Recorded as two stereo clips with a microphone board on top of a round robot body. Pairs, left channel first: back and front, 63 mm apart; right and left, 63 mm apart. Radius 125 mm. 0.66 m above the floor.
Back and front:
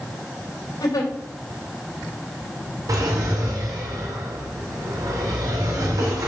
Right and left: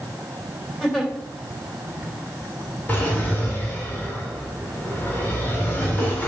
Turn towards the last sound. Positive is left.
turn(degrees=-25)